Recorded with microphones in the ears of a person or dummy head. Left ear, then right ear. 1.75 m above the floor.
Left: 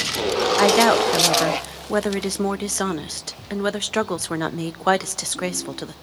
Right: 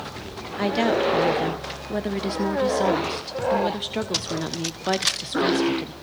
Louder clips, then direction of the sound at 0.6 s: Left 5 dB; 45° left (ahead or behind).